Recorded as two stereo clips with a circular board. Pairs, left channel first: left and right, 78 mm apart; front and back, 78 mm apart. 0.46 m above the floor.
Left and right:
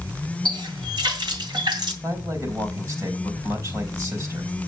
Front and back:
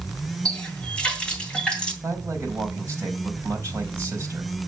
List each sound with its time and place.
0.5 s a running tap: 80° right, 2.5 m
2.0 s a man speaking: 125° right, 3.5 m